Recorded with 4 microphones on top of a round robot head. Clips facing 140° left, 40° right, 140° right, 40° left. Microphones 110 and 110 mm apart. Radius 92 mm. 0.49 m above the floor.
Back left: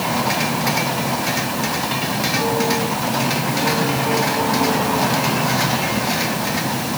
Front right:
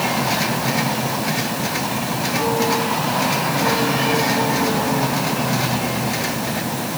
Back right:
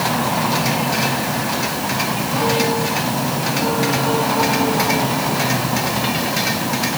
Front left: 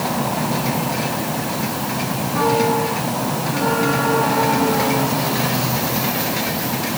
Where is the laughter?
I don't hear laughter.